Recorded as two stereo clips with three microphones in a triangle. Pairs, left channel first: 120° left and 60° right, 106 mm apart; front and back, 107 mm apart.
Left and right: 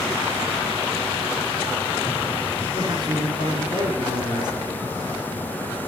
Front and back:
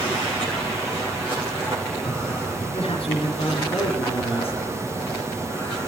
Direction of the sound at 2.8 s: 20° right.